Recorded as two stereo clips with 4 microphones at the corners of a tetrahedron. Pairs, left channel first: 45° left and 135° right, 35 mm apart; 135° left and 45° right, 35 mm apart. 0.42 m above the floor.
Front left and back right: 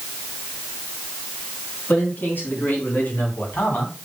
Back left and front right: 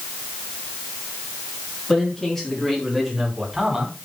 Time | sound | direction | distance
1.9 | a man speaking | 60° left | 5 m